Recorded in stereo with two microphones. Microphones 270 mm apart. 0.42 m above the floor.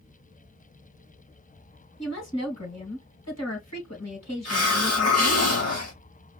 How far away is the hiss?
About 2.5 m.